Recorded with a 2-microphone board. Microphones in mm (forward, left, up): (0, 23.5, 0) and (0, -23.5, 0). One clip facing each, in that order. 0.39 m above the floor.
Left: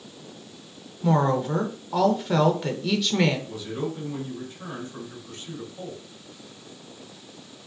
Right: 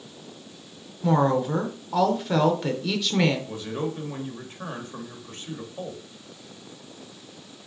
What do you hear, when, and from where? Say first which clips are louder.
1.0 s a woman speaking: right 1 dB; centre (ahead or behind), 0.8 m
3.5 s a man speaking: right 1 dB; 40° right (ahead or behind), 1.4 m